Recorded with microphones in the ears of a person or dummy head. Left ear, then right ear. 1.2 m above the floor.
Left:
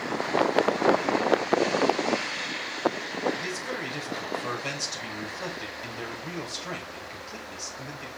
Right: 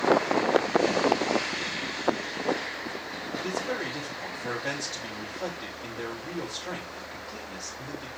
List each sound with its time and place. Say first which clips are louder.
3.4 s a man speaking: right 1 dB; 75° left (ahead or behind), 6 m